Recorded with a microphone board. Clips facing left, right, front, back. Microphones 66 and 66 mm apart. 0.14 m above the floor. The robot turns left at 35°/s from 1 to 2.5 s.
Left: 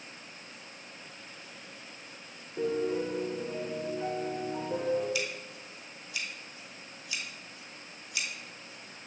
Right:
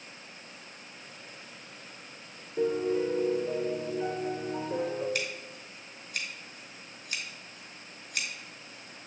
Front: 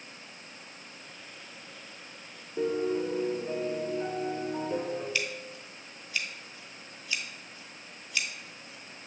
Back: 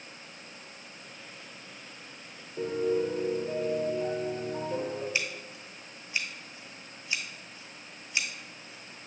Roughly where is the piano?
Ahead.